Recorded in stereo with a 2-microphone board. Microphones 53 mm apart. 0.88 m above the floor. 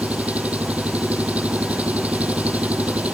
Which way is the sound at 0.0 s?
30° right (ahead or behind).